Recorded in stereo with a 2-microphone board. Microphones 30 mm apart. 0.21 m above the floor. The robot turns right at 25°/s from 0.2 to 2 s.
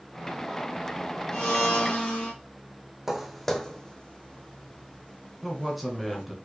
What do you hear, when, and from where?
1.3 s a blender: 35° left (ahead or behind), 2.5 m; by 2.3 s 50° left (ahead or behind), 2.5 m
3.1 s footsteps: 15° right (ahead or behind), 0.6 m; by 6.2 s 70° left (ahead or behind), 1.8 m
5.4 s a man speaking: 5° right (ahead or behind), 1.3 m